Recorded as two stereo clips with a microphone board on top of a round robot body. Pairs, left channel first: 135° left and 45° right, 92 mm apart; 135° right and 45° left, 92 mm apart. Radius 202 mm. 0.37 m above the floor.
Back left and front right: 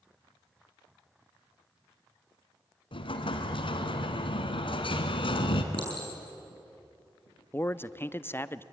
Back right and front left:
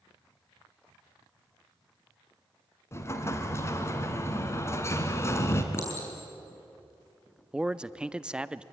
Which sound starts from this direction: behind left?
A man speaking, at 7.5 s.